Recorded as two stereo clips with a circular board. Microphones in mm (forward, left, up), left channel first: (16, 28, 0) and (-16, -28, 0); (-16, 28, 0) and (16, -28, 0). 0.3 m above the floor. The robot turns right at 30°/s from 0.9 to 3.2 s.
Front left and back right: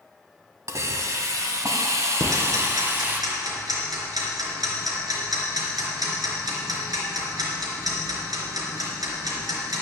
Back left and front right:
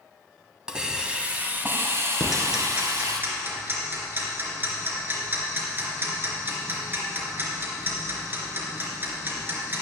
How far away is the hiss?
About 1.4 m.